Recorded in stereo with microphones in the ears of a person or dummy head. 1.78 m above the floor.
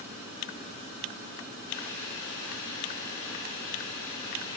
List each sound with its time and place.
1.7 s boiling: 70° left (ahead or behind), 3.5 m